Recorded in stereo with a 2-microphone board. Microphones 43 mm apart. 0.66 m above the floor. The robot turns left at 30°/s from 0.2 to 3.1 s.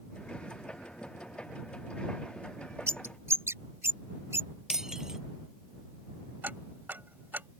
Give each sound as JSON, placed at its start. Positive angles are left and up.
{"t": 2.9, "sound": "a bird", "side_deg": -85}
{"t": 4.7, "sound": "breaking glass", "side_deg": -15}
{"t": 6.4, "sound": "ticking", "side_deg": -45}